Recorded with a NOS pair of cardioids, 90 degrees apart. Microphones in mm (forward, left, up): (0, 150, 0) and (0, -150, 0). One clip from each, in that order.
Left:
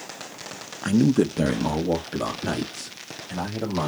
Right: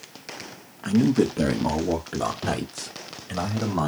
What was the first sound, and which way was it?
A man speaking, 25° left.